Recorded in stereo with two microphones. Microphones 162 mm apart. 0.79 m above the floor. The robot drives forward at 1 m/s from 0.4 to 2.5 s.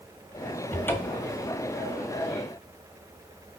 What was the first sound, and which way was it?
A cupboard door, 15° left (ahead or behind).